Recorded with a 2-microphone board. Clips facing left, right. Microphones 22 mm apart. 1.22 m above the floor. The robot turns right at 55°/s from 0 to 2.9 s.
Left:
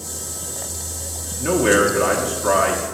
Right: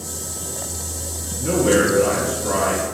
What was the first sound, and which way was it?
A man speaking, 40° left.